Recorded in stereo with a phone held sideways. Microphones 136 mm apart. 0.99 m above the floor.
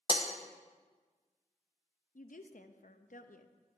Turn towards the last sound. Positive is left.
turn(degrees=75)  # may be behind; listen again after turning